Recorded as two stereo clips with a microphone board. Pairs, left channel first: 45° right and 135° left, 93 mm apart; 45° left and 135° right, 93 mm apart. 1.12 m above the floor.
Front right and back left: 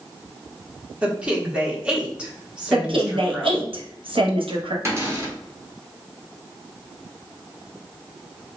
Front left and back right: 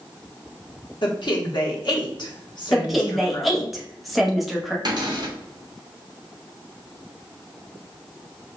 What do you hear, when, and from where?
1.0 s a woman speaking: 60° left, 1.1 m
2.7 s a woman speaking: 135° left, 0.9 m
4.8 s a cupboard door: 170° right, 1.0 m